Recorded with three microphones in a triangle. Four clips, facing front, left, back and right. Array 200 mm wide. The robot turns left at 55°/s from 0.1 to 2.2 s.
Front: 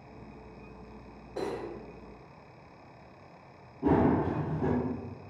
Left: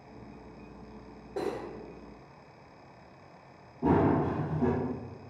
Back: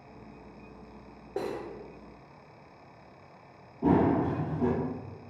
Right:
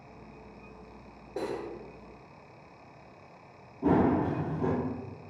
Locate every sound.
1.4 s cutlery clinking: 175° right, 0.8 m; by 1.6 s 170° left, 0.8 m
3.8 s running footsteps: 165° left, 1.3 m